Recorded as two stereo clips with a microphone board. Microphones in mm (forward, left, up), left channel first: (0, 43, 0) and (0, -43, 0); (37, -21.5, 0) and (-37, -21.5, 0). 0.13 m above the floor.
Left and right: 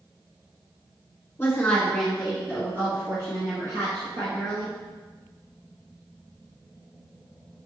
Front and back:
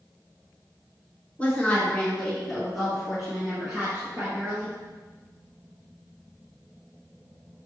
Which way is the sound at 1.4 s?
50° left.